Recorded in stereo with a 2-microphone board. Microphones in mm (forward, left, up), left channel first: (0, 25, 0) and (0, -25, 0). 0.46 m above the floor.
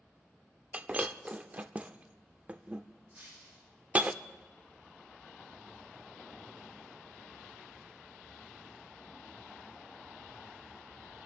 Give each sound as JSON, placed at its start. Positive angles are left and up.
{"t": 0.7, "sound": "breaking glass", "side_deg": -30, "distance_m": 0.6}
{"t": 3.1, "sound": "breaking glass", "side_deg": -40, "distance_m": 9.5}